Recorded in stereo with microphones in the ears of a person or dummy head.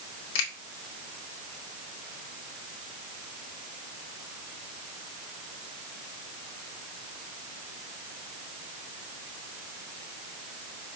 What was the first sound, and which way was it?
A finger snap, 75° left (ahead or behind).